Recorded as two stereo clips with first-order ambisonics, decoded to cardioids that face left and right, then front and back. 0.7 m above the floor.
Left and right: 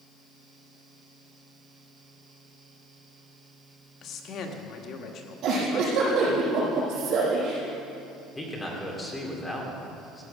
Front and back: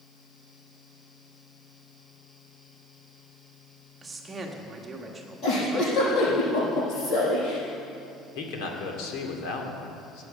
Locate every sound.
4.0 s a man speaking: 110° left, 1.4 m
5.4 s a giggle: 45° right, 6.5 m
8.3 s a man speaking: 10° left, 2.5 m